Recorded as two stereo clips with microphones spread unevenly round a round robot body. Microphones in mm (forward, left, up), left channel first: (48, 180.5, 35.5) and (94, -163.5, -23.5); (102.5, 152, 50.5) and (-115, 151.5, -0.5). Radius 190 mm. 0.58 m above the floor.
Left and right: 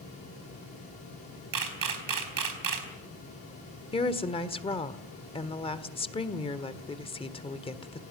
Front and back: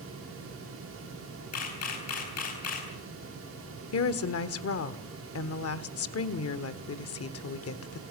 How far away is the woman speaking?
About 1.7 m.